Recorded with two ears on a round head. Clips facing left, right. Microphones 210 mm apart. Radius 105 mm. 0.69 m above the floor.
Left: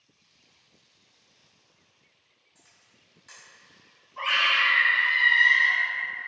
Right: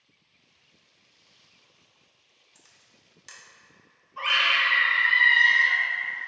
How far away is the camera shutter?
About 0.7 m.